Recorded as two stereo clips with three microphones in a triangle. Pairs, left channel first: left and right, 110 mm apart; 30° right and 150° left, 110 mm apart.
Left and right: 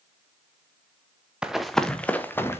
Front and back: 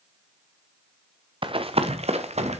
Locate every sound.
1.4 s running footsteps: 170° right, 1.1 m; by 2.6 s 155° left, 1.8 m